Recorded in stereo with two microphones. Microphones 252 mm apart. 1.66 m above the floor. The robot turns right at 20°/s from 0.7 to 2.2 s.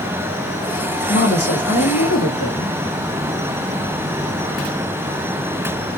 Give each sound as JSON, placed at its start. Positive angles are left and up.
{"t": 1.1, "sound": "a woman speaking", "side_deg": 75, "distance_m": 1.7}